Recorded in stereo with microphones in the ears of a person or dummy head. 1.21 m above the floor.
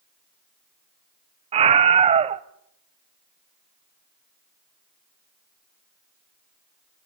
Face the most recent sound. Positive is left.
turn(degrees=-30)  # may be behind; listen again after turning